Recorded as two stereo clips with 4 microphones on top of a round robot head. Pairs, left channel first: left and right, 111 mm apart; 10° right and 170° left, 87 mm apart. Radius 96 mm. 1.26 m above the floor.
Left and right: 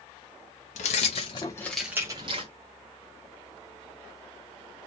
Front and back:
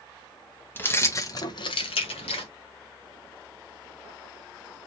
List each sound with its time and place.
0.8 s keys jangling: 60° left, 0.9 m; by 2.5 s 45° right, 0.8 m